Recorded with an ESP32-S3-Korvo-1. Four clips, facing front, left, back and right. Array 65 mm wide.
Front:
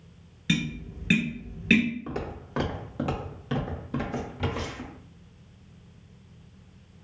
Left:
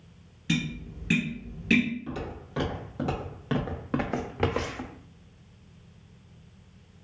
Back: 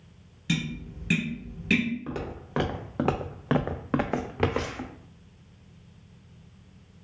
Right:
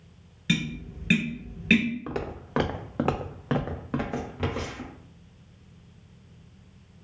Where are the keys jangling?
I don't hear keys jangling.